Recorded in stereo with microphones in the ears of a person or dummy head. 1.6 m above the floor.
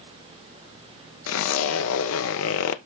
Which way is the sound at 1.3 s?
85° left.